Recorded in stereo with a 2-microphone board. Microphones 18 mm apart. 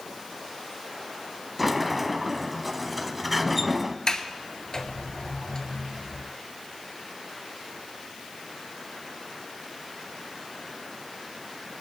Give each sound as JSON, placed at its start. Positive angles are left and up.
{"t": 1.6, "sound": "a sliding door", "side_deg": 0, "distance_m": 0.7}
{"t": 4.1, "sound": "a sliding door", "side_deg": 30, "distance_m": 1.2}